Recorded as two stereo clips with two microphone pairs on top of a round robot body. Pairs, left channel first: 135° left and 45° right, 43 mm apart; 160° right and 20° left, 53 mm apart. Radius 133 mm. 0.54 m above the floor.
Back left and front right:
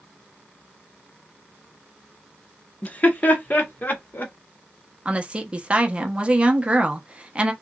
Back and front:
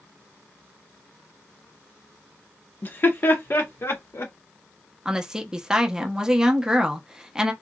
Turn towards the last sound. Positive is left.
turn(degrees=-20)